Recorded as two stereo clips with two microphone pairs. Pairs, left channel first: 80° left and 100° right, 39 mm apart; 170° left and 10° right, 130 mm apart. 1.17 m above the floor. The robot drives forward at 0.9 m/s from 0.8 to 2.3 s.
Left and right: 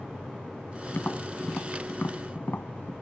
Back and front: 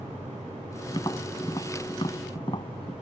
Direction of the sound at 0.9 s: 115° left.